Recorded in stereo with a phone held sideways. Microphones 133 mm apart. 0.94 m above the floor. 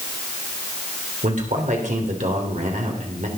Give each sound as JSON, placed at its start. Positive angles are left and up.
{"t": 1.2, "sound": "a man speaking", "side_deg": -75, "distance_m": 2.5}